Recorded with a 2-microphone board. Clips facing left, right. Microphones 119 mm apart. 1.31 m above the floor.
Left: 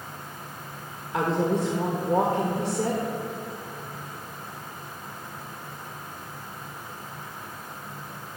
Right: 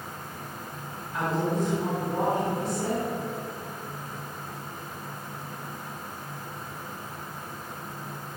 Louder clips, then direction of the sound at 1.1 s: Left 3 dB; 80° left.